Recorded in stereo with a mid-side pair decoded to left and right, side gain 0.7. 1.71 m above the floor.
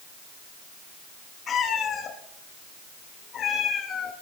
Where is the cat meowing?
40° left, 4.5 m; by 4.1 s 45° left, 3 m.